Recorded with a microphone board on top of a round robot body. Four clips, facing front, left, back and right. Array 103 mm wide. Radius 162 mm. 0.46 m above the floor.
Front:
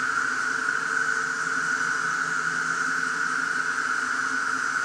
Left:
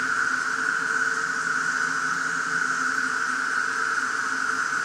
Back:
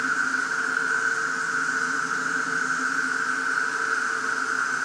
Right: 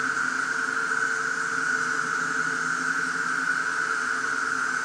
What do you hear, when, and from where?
0.0 s an insect: 90° left, 1.3 m